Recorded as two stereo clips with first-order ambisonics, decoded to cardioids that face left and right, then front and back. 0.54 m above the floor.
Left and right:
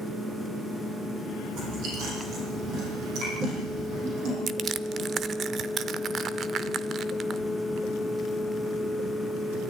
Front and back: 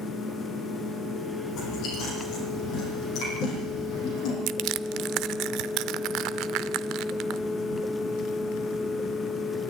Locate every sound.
1.5 s chewing: 50° right, 8.5 m
4.5 s crushing: 150° right, 0.6 m